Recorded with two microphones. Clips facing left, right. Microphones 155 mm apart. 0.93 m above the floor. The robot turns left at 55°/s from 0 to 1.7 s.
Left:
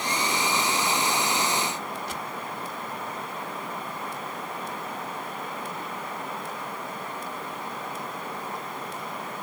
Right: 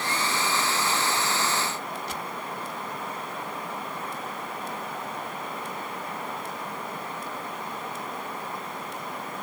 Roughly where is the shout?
No shout in this recording.